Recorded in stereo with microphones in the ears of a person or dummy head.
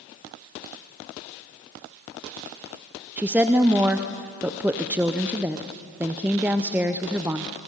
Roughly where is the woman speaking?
Centre.